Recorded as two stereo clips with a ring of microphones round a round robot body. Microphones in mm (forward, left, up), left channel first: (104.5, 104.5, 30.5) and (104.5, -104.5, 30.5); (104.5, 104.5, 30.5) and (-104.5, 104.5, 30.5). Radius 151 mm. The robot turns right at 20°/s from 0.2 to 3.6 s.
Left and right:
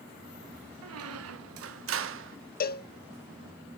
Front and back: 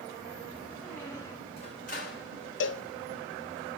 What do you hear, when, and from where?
0.8 s a squeak: 90° right, 0.6 m; by 2.4 s 55° right, 0.6 m
2.6 s a cowbell: 35° left, 0.5 m; by 2.9 s 40° left, 0.5 m